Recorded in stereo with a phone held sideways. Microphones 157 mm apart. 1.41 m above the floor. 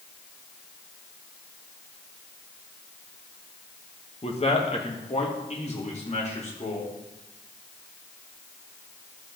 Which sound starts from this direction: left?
A man speaking, at 4.2 s.